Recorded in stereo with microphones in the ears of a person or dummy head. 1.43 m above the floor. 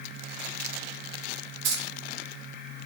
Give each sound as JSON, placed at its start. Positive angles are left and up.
{"t": 1.6, "sound": "keys jangling", "side_deg": -65, "distance_m": 0.9}